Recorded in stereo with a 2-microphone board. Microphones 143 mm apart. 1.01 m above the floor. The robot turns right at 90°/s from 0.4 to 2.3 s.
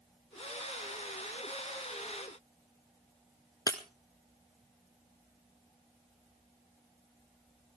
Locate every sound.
3.7 s breaking glass: 25° left (ahead or behind), 1.1 m